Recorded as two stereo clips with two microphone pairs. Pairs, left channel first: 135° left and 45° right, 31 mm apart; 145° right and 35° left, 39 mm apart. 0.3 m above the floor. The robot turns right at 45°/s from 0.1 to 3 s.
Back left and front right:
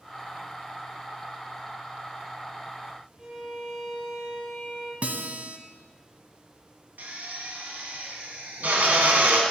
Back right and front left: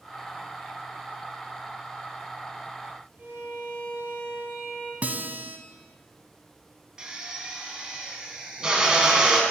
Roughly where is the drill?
Ahead right.